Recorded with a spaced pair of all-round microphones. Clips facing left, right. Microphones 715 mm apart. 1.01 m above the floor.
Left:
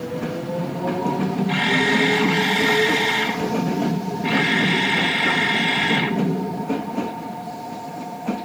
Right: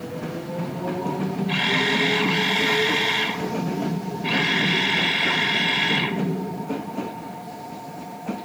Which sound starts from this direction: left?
A camera shutter, at 1.5 s.